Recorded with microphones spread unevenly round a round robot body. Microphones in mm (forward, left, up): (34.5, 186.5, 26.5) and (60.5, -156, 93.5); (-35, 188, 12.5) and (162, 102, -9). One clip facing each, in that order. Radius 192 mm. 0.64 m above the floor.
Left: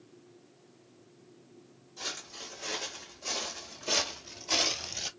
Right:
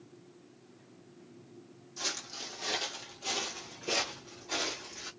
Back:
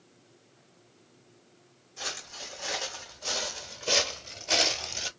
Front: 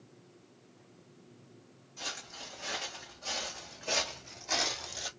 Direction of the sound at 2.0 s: 130° right.